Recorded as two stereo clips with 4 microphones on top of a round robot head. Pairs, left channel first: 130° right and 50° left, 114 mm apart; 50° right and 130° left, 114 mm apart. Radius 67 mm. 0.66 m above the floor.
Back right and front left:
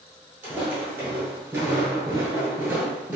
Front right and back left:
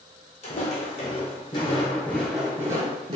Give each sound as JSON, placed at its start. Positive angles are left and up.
{"t": 0.4, "sound": "footsteps", "azimuth_deg": -25, "distance_m": 1.2}